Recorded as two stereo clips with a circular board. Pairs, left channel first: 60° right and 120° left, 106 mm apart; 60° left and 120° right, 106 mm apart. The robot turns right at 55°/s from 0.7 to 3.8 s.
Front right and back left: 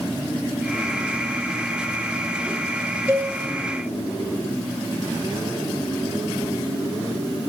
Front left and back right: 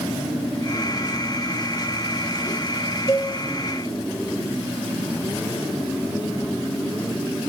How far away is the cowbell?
About 1.8 m.